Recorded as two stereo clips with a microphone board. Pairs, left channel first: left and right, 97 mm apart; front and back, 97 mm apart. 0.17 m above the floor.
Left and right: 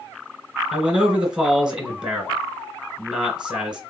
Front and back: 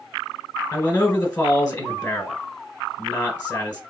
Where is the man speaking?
15° right, 1.6 m.